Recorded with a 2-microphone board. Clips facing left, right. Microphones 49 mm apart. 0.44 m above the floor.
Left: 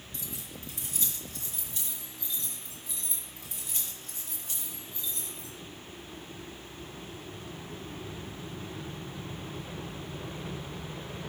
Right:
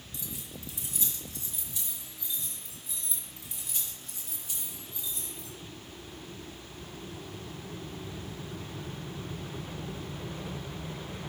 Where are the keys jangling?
50° left (ahead or behind), 2.0 m; by 5.5 s 40° left (ahead or behind), 7 m.